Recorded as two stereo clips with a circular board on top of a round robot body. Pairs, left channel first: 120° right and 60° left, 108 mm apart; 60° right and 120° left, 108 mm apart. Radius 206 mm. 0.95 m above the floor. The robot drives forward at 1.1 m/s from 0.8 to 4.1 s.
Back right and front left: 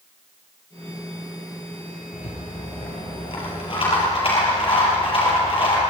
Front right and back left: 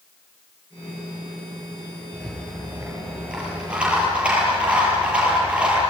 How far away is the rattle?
About 6.5 m.